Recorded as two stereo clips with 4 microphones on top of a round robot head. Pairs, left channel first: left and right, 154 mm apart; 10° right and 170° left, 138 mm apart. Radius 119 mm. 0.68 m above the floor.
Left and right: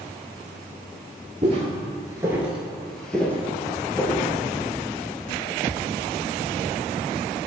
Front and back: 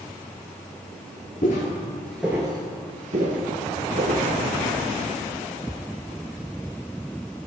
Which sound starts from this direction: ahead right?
Footsteps, at 1.4 s.